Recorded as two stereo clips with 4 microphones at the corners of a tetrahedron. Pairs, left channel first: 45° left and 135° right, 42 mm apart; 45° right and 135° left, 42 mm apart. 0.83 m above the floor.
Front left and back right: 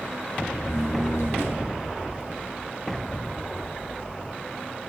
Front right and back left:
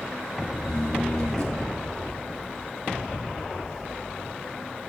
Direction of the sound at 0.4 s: 30° left.